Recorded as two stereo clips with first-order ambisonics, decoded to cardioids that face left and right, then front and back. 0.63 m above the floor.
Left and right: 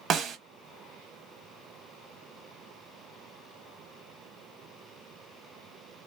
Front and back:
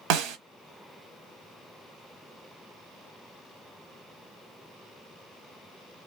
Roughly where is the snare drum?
Behind right.